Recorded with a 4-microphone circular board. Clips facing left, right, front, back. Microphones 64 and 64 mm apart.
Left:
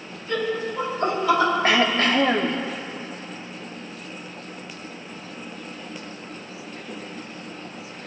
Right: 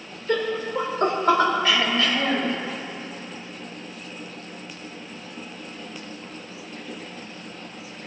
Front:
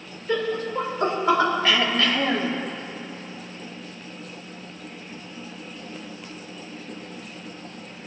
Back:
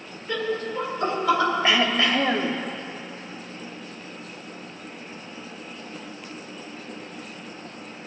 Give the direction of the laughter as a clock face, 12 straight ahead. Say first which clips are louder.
Right 1 dB, front 2 dB; 2 o'clock.